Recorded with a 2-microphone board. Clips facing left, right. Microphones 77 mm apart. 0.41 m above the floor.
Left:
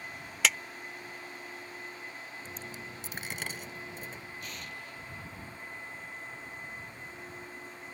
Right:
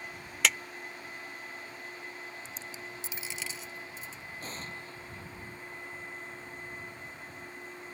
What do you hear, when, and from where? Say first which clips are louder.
0.4 s a clap: even; centre (ahead or behind)
2.5 s a dropped coin: left 1 dB; 60° left (ahead or behind)
4.4 s an explosion: right 1 dB; 35° right (ahead or behind)